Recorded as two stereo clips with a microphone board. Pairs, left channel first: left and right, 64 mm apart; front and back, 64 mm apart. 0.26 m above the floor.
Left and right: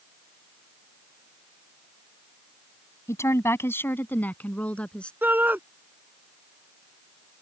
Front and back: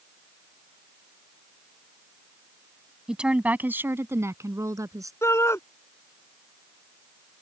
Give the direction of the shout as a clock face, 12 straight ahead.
1 o'clock.